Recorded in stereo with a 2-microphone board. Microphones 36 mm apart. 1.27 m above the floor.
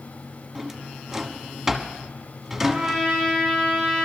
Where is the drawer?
10° right (ahead or behind), 1.3 m.